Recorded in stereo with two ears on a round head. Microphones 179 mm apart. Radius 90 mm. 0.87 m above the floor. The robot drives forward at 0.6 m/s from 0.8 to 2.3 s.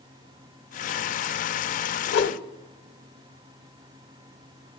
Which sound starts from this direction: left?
A whoosh, at 2.1 s.